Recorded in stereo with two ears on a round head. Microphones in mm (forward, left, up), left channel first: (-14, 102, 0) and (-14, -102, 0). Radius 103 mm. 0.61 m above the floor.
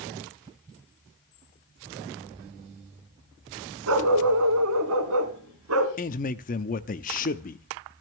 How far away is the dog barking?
About 2 m.